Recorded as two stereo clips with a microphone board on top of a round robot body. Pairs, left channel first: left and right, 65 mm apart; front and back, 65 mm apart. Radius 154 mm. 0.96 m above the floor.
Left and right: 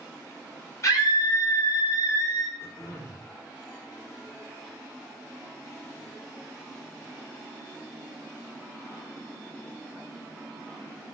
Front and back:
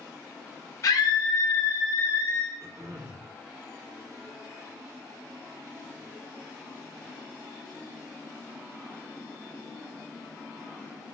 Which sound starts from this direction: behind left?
Throat clearing, at 2.6 s.